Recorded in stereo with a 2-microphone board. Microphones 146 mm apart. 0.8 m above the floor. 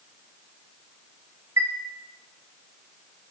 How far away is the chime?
About 3 m.